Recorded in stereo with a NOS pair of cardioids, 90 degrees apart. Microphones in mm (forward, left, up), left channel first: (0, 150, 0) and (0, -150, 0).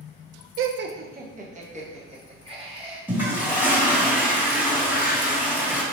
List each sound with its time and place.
0.6 s laughter: 50° right, 0.5 m; by 3.0 s 20° right, 2.5 m
3.1 s a toilet flushing: 5° right, 1.7 m